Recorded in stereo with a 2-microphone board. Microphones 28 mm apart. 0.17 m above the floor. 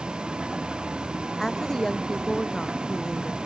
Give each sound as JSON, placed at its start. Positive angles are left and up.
{"t": 0.0, "sound": "a vehicle", "side_deg": -35}
{"t": 1.4, "sound": "a woman speaking", "side_deg": 10}